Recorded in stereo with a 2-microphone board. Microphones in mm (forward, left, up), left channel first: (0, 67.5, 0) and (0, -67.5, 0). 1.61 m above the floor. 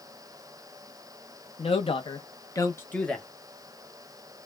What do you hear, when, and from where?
1.6 s a woman speaking: 50° left (ahead or behind), 0.8 m; by 3.3 s 5° left (ahead or behind), 0.8 m